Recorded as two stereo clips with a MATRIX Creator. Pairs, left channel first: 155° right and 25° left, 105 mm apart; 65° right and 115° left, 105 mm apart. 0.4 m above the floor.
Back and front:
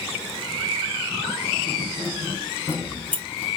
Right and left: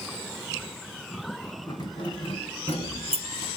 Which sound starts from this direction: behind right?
Keys jangling, at 1.7 s.